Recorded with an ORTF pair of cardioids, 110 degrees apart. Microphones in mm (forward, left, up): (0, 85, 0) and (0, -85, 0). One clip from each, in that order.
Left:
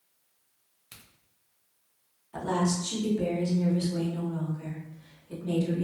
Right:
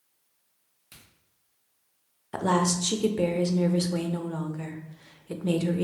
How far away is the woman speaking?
About 0.6 m.